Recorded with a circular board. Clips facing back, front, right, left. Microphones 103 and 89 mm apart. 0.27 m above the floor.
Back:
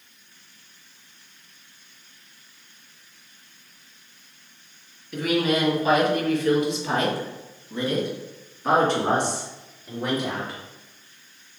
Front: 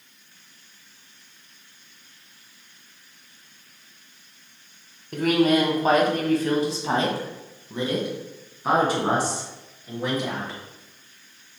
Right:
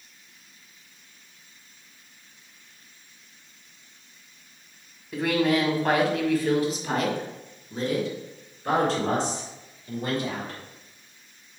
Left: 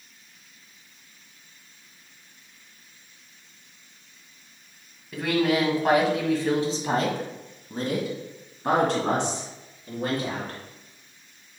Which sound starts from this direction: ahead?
A woman speaking, at 5.1 s.